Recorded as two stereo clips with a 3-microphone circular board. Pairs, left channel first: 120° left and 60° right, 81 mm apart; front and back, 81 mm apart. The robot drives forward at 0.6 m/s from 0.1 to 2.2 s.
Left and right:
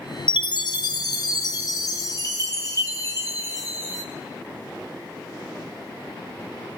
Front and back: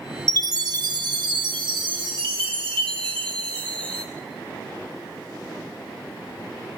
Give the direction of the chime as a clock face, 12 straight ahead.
8 o'clock.